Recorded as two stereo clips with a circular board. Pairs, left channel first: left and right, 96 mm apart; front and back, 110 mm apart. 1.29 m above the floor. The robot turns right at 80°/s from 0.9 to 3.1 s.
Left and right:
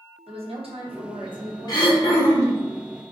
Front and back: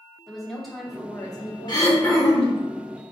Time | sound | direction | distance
0.3 | a woman speaking | 90° right | 0.9 m
1.7 | throat clearing | 45° left | 0.9 m